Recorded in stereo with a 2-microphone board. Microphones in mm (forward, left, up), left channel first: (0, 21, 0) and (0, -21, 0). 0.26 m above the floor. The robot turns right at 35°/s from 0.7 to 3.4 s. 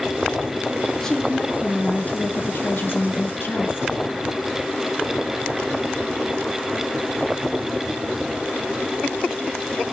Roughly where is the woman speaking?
Ahead.